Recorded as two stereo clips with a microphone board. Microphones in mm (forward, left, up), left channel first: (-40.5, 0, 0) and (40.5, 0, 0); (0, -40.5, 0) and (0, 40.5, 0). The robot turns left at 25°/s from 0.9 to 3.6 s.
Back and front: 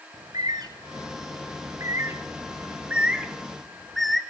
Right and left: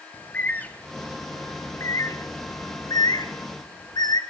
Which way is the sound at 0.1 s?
20° right.